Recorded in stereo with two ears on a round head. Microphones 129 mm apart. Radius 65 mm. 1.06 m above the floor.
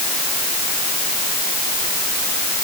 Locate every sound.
Only background noise.